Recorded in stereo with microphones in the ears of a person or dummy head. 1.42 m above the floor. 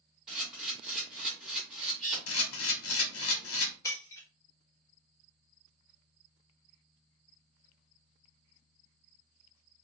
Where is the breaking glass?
15° left (ahead or behind), 1.4 m.